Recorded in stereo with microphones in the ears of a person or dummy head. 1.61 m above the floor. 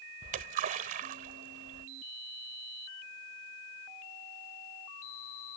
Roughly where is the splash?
Right.